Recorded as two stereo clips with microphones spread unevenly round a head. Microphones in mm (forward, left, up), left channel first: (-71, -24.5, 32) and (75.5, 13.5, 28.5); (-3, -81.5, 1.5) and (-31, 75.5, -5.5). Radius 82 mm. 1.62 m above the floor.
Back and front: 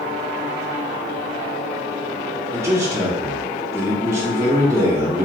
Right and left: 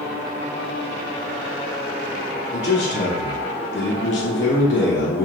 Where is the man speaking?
60° right, 0.6 m.